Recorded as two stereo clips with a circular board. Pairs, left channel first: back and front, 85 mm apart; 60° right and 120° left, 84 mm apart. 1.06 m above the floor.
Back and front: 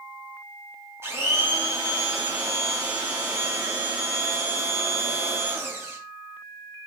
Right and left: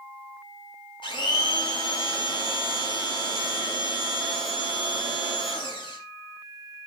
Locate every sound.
1.0 s a blender: 60° right, 3 m